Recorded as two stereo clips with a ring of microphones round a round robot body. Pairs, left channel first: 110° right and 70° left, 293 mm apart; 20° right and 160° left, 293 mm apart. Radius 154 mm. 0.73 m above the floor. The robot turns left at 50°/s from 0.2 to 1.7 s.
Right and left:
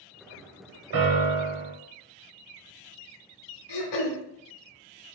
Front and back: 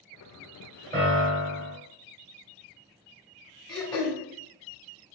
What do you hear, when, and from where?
0.9 s a piano: 90° left, 1.4 m; by 1.7 s 50° left, 1.4 m
3.7 s throat clearing: 100° right, 0.8 m